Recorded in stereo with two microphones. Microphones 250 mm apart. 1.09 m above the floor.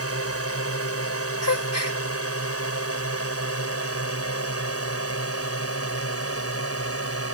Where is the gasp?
85° left.